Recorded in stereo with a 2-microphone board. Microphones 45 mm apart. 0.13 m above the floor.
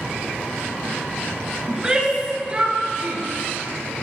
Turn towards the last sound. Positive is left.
turn(degrees=-35)  # may be behind; listen again after turning